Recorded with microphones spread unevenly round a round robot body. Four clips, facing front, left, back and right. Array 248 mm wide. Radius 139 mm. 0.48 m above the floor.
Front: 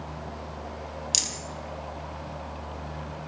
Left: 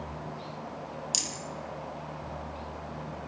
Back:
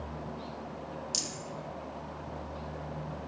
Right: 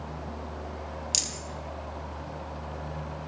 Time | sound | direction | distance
1.1 | a rattle | 5° right | 3.5 m